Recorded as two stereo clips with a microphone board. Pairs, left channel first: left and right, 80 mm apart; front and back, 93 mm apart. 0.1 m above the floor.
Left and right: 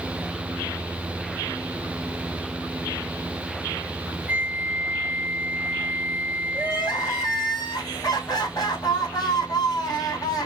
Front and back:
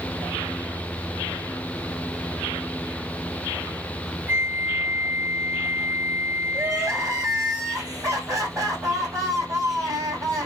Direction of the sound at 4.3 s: 140° right.